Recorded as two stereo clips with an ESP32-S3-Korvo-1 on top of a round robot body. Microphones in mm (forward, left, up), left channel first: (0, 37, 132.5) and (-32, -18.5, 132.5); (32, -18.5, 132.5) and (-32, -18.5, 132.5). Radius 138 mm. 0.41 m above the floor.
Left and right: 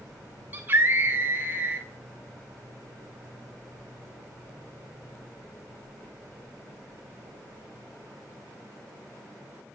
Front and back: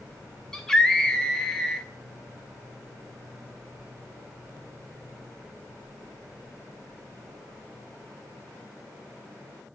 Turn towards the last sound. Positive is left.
turn(degrees=-80)